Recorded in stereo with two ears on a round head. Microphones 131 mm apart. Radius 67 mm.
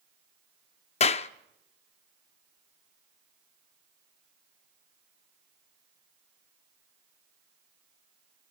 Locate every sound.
1.0 s a clap: 45° left (ahead or behind), 0.6 m